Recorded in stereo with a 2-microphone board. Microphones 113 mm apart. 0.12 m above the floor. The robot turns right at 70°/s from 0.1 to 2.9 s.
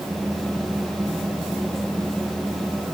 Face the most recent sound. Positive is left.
No sound to turn to.